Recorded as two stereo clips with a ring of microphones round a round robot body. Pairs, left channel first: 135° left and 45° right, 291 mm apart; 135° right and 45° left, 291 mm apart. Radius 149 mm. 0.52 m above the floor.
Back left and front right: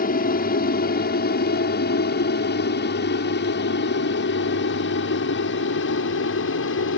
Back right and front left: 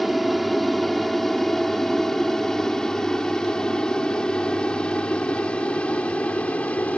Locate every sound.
0.0 s an aircraft: 135° left; by 7.0 s 140° left